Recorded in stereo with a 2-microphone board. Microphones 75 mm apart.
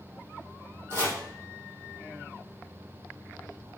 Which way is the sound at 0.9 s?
35° right (ahead or behind).